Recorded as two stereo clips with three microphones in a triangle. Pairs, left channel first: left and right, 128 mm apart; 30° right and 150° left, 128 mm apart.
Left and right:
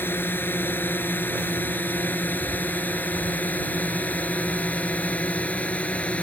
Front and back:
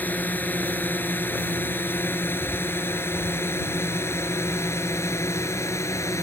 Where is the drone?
35° left; by 6.2 s 20° left.